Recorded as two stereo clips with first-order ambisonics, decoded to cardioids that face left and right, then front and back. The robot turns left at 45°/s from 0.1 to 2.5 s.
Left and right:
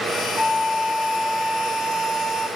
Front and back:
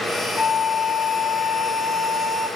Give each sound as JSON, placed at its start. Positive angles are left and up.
{"t": 0.4, "sound": "a flute", "azimuth_deg": 20, "distance_m": 0.7}